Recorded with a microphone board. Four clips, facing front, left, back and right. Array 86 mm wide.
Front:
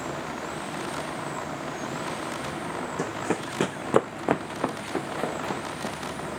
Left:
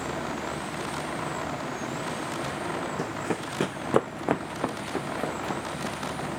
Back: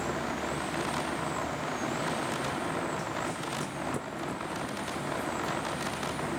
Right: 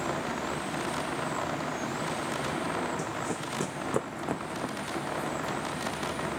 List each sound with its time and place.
3.0 s running footsteps: 25° left; by 6.0 s 30° left